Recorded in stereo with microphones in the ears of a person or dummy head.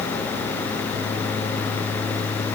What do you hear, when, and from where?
Only background noise.